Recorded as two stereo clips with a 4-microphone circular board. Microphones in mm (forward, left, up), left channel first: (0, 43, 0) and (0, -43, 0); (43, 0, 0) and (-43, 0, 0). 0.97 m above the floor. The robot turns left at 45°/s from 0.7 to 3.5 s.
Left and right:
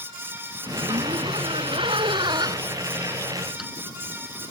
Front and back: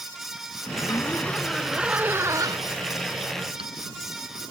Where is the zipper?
50° right; by 3.7 s 175° right.